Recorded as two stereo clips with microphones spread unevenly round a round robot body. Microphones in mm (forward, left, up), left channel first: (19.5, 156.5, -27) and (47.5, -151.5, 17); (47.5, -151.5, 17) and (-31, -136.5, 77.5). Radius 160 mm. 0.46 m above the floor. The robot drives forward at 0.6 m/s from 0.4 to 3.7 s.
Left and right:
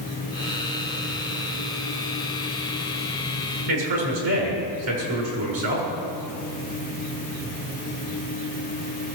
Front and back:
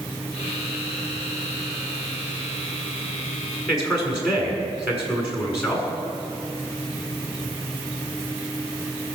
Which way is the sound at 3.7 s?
105° right.